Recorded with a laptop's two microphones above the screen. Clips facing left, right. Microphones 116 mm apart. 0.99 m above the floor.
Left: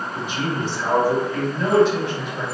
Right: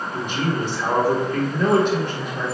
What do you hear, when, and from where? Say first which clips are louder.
0.1 s a man speaking: right 2 dB; 50° right (ahead or behind), 1.5 m